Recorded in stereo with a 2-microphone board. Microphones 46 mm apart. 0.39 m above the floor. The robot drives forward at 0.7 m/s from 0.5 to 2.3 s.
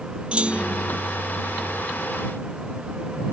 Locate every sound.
0.3 s a clunk: 25° right (ahead or behind)